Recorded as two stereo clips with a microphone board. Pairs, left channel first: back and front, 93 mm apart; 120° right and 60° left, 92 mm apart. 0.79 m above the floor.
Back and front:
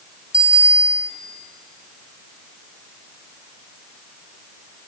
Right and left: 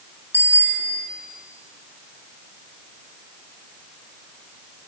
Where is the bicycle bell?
Straight ahead, 4.5 m.